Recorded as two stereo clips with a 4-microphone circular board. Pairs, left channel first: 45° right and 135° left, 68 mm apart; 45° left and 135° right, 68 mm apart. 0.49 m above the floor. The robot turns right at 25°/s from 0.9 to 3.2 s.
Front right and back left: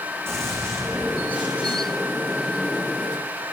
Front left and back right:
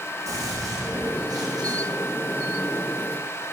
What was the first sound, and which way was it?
A gunshot, 170° right.